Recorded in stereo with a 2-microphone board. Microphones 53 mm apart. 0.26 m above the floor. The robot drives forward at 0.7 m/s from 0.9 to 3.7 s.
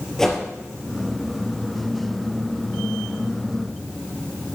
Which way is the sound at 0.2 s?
5° left (ahead or behind).